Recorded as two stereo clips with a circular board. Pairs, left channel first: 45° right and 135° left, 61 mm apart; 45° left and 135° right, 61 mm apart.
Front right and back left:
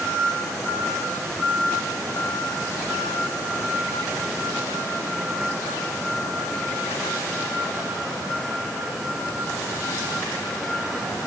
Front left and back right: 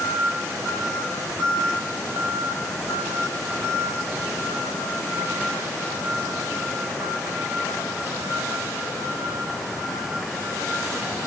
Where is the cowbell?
I don't hear a cowbell.